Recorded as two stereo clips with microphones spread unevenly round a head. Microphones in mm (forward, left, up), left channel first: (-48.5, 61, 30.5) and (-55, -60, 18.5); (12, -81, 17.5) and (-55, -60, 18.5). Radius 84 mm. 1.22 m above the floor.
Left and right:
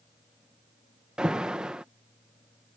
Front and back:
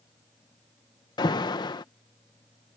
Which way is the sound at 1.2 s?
10° right.